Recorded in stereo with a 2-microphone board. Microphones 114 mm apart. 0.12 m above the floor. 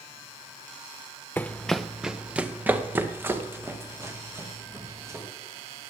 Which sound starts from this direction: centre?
Running footsteps, at 1.4 s.